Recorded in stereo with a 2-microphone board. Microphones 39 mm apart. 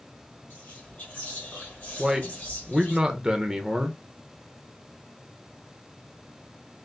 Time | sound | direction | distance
0.5 | whispering | 45° left (ahead or behind) | 1.7 m
2.0 | a man speaking | 10° right (ahead or behind) | 0.6 m